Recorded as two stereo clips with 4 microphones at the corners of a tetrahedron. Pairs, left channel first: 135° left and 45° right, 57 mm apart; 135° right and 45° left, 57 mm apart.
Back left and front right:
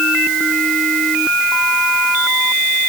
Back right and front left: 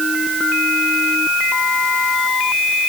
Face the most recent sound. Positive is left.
No sound to turn to.